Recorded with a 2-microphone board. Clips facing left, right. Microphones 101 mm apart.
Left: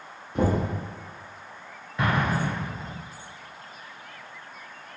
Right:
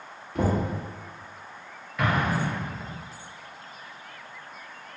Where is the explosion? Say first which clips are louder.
Even; 30° left (ahead or behind), 1.3 m.